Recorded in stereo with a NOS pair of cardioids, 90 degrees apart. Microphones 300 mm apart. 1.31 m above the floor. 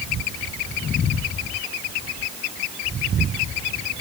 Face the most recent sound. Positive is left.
No sound to turn to.